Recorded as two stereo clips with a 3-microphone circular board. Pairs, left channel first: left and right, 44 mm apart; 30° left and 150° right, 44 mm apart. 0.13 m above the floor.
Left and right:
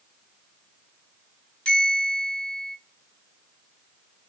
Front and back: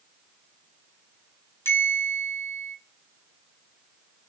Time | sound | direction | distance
1.6 | a bell | 25° left | 1.0 m